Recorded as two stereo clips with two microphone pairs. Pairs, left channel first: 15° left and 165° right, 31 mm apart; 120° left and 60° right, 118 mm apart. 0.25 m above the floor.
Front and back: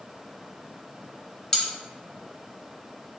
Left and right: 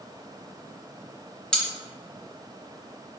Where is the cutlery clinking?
50° left, 0.6 m.